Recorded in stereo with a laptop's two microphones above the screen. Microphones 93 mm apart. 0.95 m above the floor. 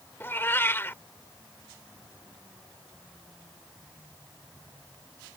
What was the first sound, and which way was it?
A cat meowing, 25° left (ahead or behind).